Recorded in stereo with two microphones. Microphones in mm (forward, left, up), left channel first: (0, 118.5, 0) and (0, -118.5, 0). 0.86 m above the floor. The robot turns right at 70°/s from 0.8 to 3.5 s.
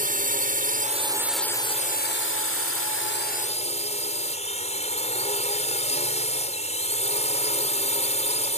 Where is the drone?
40° right; by 8.6 s 150° left.